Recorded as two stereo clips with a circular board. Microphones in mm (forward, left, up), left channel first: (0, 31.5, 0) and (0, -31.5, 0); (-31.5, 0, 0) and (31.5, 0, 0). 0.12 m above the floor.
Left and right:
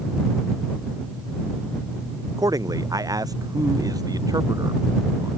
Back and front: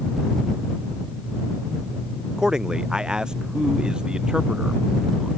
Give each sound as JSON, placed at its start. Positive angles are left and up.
{"t": 2.4, "sound": "a man speaking", "azimuth_deg": -80}